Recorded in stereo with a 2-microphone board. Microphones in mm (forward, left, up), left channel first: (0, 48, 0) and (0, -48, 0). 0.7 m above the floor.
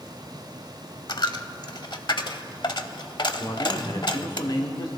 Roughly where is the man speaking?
Left.